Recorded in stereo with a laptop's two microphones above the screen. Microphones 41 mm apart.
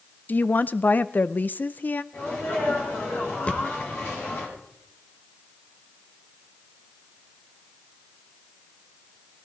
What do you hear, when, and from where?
0.3 s a woman speaking: 45° left (ahead or behind), 0.5 m
2.1 s a sneeze: 65° left (ahead or behind), 7 m
3.5 s a thud: 30° left (ahead or behind), 1.6 m